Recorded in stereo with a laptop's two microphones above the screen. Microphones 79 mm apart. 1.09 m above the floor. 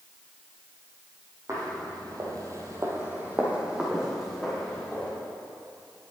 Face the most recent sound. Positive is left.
turn(degrees=5)  # may be behind; listen again after turning